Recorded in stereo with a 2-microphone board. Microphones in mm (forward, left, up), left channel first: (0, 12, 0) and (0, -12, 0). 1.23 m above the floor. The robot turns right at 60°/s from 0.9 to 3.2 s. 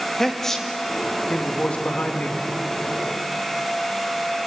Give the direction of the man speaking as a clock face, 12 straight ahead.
12 o'clock.